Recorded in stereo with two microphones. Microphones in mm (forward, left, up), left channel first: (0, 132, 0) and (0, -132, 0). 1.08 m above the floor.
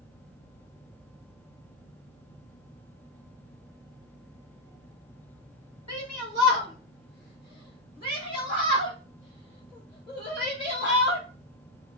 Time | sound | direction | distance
5.9 | a shout | 80° left | 0.7 m